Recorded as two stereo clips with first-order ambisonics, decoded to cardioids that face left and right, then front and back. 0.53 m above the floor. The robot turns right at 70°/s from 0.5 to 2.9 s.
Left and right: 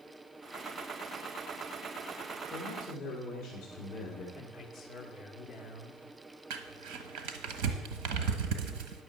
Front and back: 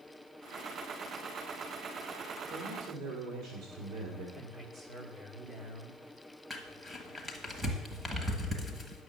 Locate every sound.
2.5 s a man speaking: 140° left, 1.9 m; by 4.2 s 170° left, 1.9 m
4.3 s a man speaking: 155° left, 1.1 m
6.5 s crumpling: 100° right, 1.4 m